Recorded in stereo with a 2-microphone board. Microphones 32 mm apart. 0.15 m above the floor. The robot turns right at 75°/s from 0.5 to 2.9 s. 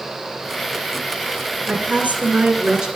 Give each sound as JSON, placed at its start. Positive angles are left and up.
{"t": 1.7, "sound": "a woman speaking", "azimuth_deg": -130, "distance_m": 1.8}